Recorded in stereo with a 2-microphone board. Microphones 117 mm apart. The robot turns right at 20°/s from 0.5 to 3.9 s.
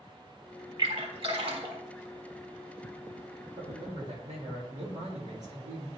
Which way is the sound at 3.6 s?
80° right.